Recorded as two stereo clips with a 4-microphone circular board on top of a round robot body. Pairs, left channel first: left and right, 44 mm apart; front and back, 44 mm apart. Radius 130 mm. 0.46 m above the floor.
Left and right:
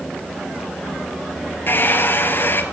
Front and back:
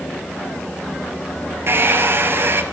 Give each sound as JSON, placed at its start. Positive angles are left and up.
{"t": 1.7, "sound": "a hair dryer", "azimuth_deg": 140, "distance_m": 2.0}